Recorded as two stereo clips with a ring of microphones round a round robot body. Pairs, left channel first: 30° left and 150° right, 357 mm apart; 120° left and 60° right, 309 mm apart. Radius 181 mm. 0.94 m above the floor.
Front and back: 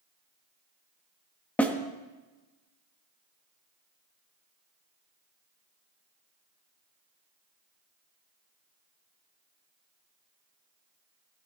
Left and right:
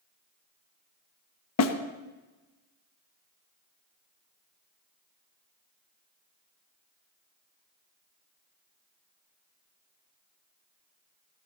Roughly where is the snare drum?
Behind left.